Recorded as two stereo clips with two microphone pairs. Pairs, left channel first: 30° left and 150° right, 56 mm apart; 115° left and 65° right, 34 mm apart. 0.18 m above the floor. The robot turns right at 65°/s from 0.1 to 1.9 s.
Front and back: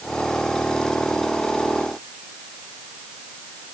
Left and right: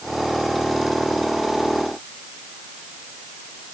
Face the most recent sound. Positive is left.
No sound to turn to.